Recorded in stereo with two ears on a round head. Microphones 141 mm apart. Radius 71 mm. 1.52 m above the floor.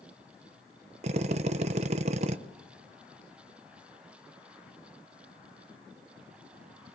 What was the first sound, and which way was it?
A drill, 45° right (ahead or behind).